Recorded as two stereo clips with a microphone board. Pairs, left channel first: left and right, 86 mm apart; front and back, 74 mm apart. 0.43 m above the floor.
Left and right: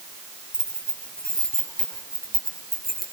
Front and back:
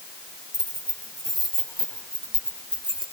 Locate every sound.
0.5 s keys jangling: 170° left, 7.5 m; by 3.0 s straight behind, 6 m